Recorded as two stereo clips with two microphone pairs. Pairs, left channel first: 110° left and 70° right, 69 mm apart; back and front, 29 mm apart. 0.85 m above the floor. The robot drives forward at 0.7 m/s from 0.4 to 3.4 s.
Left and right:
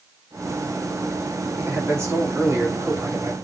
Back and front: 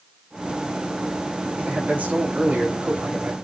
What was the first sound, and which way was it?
A man speaking, 20° right.